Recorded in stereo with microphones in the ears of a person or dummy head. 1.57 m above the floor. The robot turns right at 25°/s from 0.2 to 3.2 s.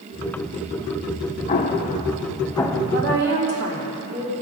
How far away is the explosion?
About 0.9 m.